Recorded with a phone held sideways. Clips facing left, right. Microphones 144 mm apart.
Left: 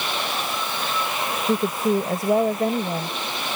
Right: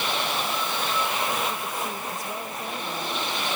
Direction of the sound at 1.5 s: 70° left (ahead or behind).